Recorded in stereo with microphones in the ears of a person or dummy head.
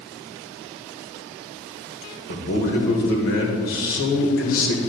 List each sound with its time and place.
2.3 s a man speaking: 70° left (ahead or behind), 1.9 m